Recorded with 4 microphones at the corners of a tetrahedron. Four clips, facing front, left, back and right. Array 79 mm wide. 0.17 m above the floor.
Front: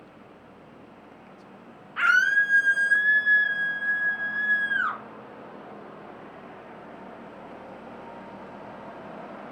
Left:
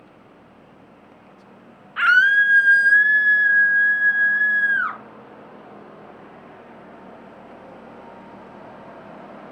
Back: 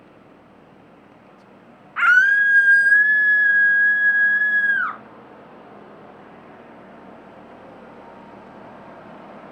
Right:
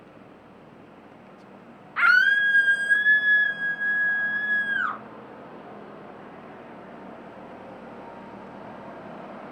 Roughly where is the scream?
Behind.